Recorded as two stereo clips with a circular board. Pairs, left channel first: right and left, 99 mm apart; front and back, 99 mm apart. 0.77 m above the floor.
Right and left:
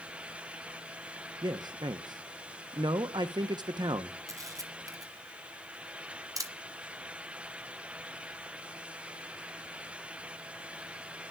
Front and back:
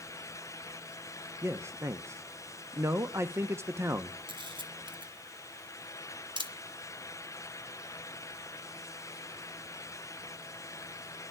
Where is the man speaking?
125° left, 0.6 m.